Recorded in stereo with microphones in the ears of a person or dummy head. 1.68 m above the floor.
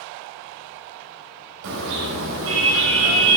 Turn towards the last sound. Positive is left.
turn(degrees=-60)  # may be behind; listen again after turning